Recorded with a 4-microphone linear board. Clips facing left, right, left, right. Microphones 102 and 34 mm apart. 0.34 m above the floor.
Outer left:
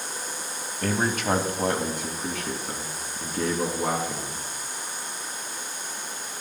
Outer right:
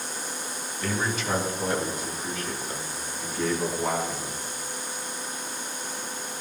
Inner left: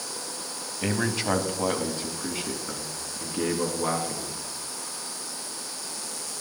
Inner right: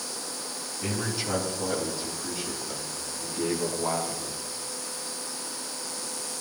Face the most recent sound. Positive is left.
turn(degrees=80)